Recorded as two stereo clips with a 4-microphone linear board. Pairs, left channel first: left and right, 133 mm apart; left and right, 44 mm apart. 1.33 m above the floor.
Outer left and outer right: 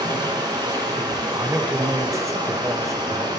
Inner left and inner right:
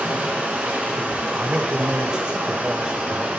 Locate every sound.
0.0 s running water: 35° right (ahead or behind), 2 m
1.4 s a man speaking: 20° right (ahead or behind), 0.9 m